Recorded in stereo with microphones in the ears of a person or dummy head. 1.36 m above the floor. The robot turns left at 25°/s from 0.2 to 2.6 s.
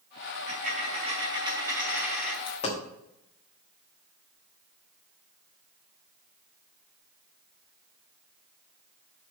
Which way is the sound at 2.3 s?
30° left (ahead or behind).